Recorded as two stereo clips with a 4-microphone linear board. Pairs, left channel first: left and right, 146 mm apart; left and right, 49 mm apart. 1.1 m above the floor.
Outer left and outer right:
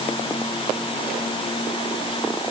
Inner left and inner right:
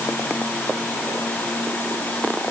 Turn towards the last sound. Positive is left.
No sound to turn to.